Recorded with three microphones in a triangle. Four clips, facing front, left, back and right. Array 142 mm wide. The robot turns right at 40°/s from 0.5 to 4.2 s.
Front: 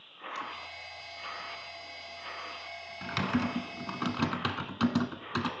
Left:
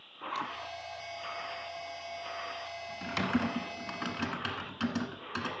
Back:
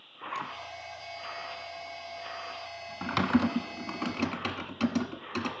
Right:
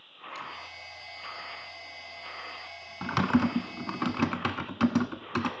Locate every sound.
0.2 s a zipper: 140° left, 1.7 m
3.0 s typing on a keyboard: 120° right, 1.2 m; by 5.5 s 75° right, 1.2 m